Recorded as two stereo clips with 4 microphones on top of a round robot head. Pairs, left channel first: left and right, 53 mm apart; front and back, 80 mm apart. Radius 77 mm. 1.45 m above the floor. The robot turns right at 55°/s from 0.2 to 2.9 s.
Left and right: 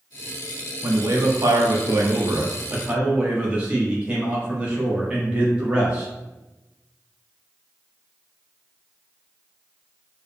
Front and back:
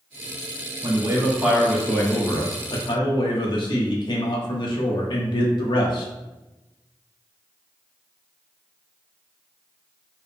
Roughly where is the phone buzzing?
I don't hear a phone buzzing.